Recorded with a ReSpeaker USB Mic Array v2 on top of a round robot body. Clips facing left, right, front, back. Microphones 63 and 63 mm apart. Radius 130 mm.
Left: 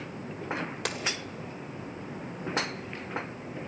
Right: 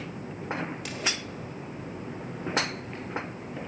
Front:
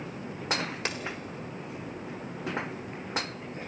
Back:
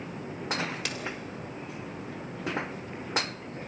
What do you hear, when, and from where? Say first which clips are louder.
0.8 s a dropped coin: left 3 dB, front 2 dB; 60° left, 1.3 m